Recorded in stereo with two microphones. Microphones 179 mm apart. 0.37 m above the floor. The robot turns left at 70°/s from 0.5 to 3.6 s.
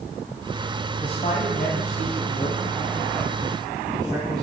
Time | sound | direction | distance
1.0 | a man speaking | 155° left | 2 m